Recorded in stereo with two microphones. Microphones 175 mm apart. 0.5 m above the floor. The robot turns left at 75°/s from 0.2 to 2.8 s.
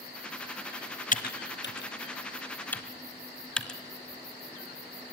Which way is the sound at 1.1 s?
50° left (ahead or behind).